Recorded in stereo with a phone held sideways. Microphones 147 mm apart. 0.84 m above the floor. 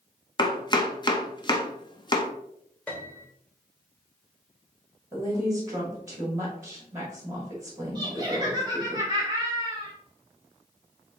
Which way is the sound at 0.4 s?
30° left (ahead or behind).